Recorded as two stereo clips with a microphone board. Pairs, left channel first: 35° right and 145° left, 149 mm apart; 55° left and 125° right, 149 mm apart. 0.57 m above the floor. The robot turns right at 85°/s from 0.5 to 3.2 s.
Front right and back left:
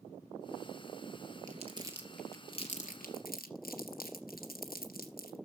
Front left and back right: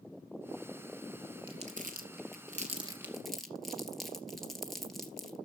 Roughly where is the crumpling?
Behind.